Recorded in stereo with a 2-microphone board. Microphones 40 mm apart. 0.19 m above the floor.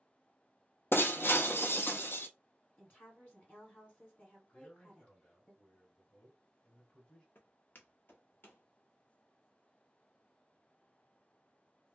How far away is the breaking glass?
About 0.5 m.